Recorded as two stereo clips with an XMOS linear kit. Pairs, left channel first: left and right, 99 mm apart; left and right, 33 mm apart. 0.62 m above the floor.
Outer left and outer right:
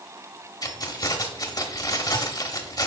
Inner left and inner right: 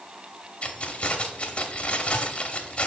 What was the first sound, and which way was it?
Keys jangling, 40° left (ahead or behind).